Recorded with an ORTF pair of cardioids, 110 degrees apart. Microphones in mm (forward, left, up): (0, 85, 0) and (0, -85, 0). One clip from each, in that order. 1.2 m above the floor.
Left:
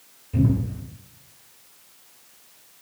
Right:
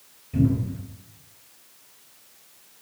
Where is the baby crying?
No baby crying in this recording.